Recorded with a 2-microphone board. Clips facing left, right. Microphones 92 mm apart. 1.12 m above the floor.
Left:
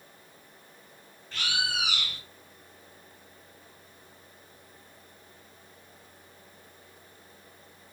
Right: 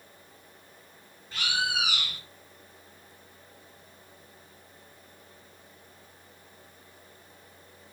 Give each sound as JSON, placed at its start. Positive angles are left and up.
{"t": 1.3, "sound": "a bird", "side_deg": -15, "distance_m": 1.3}